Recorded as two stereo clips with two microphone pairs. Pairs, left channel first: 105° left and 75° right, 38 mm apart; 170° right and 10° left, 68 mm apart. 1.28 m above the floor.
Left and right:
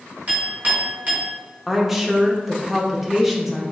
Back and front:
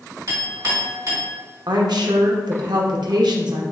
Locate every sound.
0.3 s a clink: 20° right, 1.9 m
1.7 s a woman speaking: 10° left, 0.8 m